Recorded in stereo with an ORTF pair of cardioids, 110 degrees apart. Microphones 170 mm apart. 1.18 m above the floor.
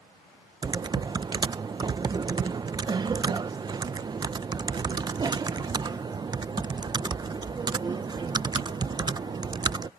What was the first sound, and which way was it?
Typing on a keyboard, 25° right.